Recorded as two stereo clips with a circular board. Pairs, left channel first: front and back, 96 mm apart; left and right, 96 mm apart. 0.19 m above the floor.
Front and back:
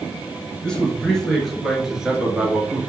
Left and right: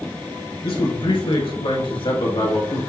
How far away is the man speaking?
About 3 m.